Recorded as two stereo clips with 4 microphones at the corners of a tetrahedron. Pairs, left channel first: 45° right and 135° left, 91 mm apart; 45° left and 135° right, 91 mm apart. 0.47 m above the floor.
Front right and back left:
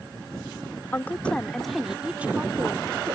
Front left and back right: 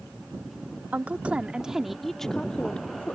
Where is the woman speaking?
85° right; by 3.2 s 110° left.